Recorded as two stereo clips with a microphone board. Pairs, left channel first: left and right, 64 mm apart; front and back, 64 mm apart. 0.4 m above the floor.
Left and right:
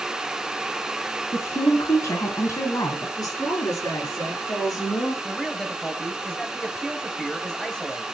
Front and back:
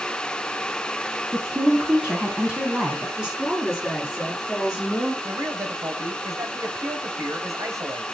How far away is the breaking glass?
I don't hear breaking glass.